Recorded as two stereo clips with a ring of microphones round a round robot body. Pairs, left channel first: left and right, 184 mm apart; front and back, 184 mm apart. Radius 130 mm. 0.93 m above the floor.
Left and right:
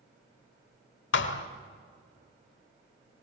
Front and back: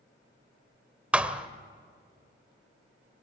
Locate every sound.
1.1 s a thud: 95° left, 1.4 m